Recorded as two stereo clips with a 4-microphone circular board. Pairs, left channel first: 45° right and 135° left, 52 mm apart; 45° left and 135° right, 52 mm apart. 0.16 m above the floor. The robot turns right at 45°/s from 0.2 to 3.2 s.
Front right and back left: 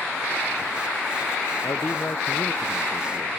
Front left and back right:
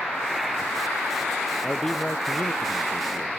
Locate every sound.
1.6 s a man speaking: 40° right; by 3.3 s 30° left